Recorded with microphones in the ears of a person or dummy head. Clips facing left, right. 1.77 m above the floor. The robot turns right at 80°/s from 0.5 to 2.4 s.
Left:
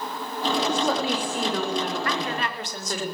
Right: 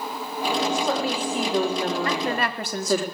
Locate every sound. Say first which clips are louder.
0.7 s a woman speaking: even; 125° left, 5.5 m; by 3.0 s 95° right, 5.5 m
2.0 s a woman speaking: right 3 dB; 20° right (ahead or behind), 3.5 m; by 3.0 s 50° right (ahead or behind), 3.5 m